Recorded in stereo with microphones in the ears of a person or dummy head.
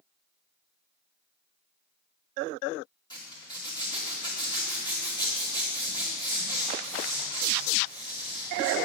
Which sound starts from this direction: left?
A zipper, at 3.1 s.